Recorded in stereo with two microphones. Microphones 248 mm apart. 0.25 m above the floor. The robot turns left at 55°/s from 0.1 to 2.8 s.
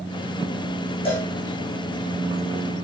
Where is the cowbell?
20° left (ahead or behind), 8 m; by 1.3 s 35° left (ahead or behind), 8 m.